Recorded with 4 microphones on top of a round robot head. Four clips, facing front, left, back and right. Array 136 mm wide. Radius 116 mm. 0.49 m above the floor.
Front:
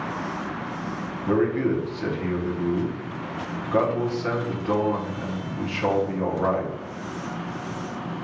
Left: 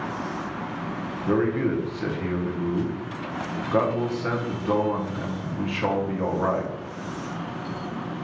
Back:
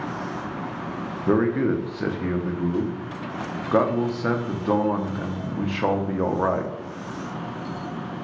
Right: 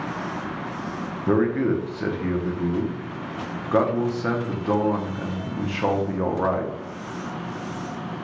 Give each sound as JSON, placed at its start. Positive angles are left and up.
{"t": 1.3, "sound": "a man speaking", "azimuth_deg": -155, "distance_m": 0.8}